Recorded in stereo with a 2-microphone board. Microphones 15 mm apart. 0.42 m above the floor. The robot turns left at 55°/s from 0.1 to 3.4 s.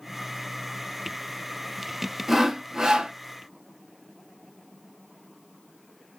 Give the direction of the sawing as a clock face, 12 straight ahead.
1 o'clock.